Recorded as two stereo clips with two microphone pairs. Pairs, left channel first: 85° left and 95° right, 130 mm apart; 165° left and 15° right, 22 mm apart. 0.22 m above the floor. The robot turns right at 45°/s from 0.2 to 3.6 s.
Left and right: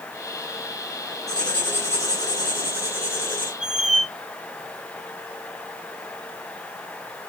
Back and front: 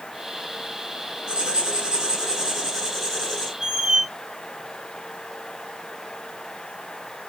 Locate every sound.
1.3 s writing: straight ahead, 1.9 m; by 3.5 s 100° left, 1.9 m
3.6 s a squeak: 75° right, 0.7 m